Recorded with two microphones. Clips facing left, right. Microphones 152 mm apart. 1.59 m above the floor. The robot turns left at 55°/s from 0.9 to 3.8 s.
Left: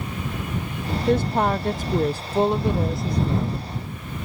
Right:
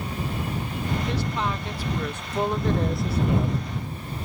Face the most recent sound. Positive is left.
turn(degrees=-45)